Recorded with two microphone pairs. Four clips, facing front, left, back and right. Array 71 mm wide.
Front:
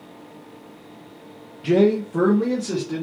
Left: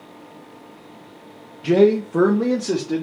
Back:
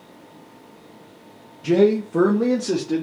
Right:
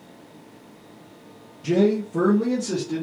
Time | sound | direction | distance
1.6 | a man speaking | 80° left | 0.7 m